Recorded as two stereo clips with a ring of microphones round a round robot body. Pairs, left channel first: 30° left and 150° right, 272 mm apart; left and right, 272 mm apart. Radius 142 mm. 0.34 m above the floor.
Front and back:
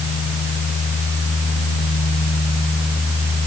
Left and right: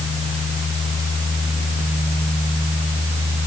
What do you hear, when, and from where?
Only background noise.